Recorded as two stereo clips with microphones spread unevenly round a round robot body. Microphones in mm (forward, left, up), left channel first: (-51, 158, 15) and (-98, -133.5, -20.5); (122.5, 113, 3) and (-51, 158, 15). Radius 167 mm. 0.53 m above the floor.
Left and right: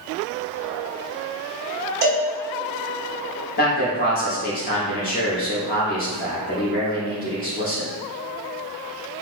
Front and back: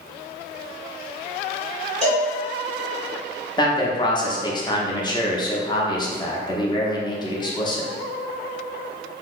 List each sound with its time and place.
2.0 s a cowbell: 140° right, 1.1 m
3.6 s a man speaking: 30° left, 0.8 m